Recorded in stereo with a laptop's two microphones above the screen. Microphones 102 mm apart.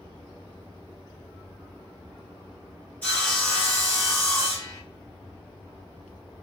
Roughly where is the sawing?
Centre.